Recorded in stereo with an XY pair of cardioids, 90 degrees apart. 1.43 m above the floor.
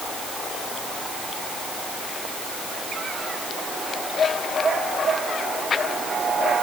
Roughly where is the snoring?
I don't hear snoring.